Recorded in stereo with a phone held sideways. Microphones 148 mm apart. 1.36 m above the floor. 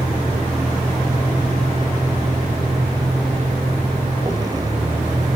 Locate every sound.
0.0 s a vehicle: 25° right (ahead or behind)